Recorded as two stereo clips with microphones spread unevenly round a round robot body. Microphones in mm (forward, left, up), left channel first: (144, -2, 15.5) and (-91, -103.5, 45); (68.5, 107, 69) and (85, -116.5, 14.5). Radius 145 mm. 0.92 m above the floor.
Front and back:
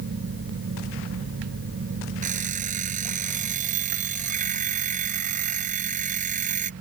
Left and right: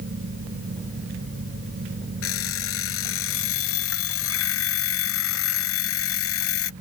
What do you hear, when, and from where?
2.2 s an alarm clock: 140° left